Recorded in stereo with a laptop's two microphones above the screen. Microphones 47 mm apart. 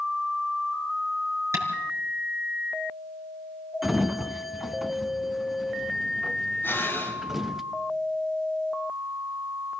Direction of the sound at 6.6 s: 45° left (ahead or behind).